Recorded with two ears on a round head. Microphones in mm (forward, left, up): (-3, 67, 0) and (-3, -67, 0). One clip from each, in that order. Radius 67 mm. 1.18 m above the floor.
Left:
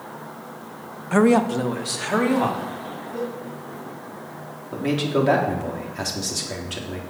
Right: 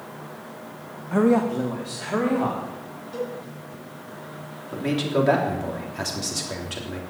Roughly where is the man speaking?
Centre.